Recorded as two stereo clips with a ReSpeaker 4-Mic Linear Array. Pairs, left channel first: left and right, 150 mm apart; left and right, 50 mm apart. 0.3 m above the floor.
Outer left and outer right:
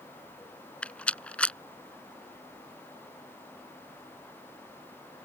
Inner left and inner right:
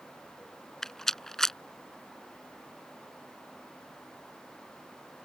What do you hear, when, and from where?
0.8 s a rattle: 10° left (ahead or behind)